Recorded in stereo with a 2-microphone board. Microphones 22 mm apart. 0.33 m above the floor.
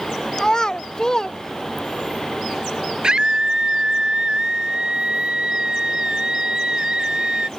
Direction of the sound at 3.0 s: 40° right (ahead or behind).